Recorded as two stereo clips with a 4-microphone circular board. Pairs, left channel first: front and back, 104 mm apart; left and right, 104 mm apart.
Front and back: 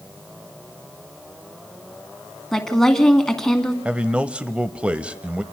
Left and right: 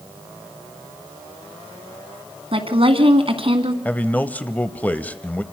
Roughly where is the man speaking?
Behind left.